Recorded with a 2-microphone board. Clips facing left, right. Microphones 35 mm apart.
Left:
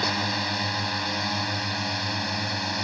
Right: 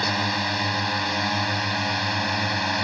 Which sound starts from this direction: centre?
A drone, at 0.0 s.